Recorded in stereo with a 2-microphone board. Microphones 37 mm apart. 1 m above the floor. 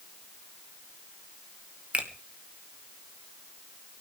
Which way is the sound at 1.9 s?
35° right (ahead or behind).